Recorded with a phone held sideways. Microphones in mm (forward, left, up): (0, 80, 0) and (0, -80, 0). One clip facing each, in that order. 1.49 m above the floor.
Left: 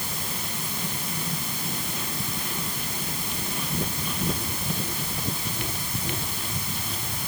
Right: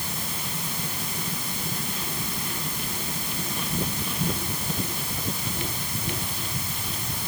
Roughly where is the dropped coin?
No dropped coin in this recording.